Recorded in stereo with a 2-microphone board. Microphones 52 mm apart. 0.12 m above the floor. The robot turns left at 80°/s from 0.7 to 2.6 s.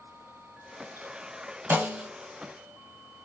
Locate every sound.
1.7 s a snare drum: 140° right, 0.8 m; by 2.1 s 170° right, 0.8 m